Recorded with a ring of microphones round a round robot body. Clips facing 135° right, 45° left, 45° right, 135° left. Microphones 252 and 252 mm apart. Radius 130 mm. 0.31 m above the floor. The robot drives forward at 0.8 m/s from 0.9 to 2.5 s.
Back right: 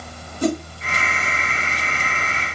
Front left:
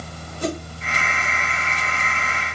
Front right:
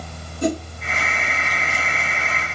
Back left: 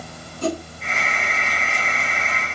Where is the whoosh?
120° right, 0.9 m.